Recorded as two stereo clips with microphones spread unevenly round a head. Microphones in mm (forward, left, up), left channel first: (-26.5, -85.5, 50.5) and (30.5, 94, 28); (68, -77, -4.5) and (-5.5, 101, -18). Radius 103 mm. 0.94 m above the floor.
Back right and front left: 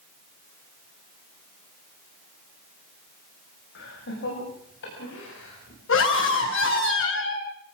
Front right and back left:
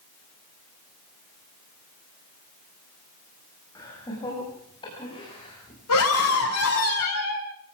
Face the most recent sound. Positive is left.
turn(degrees=-85)